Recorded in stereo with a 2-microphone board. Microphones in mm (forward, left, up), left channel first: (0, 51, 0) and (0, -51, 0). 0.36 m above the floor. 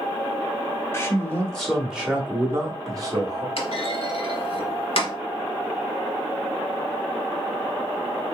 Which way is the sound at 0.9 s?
25° left (ahead or behind).